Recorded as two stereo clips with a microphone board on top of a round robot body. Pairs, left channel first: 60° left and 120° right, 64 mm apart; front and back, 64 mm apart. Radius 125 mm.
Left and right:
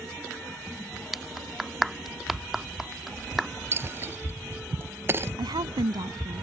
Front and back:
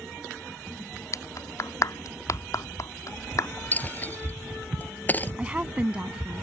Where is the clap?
30° right.